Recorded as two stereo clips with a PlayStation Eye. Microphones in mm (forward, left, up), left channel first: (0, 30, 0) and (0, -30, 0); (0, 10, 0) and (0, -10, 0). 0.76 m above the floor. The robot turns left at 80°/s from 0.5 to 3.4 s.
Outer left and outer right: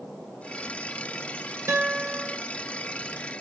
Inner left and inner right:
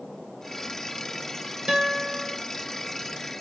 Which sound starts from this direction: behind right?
A guitar, at 1.7 s.